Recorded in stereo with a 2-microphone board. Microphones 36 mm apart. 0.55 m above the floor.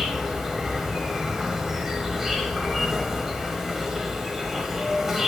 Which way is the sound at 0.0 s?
10° right (ahead or behind).